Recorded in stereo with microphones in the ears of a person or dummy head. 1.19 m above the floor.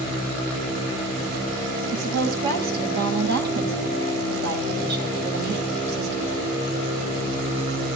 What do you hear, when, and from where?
1.9 s a woman speaking: 60° right (ahead or behind), 8.5 m